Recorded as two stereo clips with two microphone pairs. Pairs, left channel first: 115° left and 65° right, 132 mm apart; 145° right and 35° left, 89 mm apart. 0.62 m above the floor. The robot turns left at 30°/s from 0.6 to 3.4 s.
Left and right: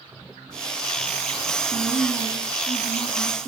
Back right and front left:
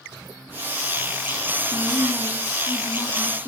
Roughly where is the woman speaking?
Behind right.